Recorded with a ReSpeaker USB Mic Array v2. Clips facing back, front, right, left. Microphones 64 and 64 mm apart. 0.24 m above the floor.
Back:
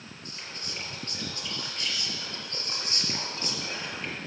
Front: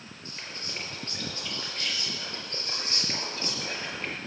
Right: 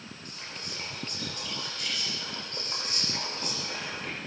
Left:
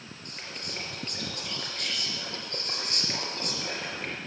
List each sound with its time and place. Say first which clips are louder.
0.2 s whispering: front 1 dB, left 2 dB; 55° left, 5 m